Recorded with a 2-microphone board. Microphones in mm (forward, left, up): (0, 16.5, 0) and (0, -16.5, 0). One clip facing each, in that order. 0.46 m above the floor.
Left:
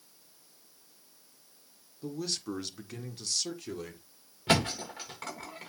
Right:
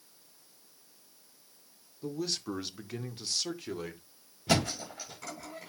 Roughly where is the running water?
I don't hear running water.